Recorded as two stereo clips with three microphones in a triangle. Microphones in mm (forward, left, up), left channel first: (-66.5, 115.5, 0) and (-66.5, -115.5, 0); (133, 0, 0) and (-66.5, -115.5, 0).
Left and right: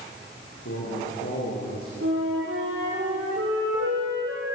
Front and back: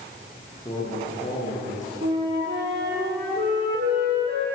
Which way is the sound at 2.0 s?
110° right.